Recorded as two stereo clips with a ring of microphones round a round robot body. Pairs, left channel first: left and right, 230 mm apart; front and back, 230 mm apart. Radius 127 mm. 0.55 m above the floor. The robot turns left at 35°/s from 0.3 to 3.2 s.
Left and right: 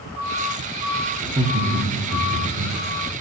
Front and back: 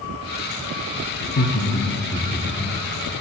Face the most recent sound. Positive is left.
turn(degrees=-95)